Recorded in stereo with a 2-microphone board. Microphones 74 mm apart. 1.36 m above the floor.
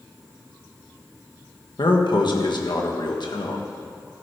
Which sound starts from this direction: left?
A man speaking, at 1.8 s.